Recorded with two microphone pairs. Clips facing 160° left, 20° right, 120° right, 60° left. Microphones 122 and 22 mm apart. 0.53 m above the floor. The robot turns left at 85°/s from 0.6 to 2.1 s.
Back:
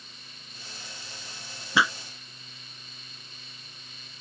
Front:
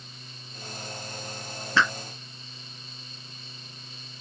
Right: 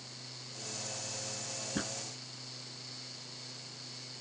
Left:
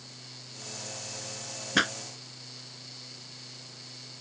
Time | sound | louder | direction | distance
1.8 | a pop | even, left 14 dB | 85° left | ?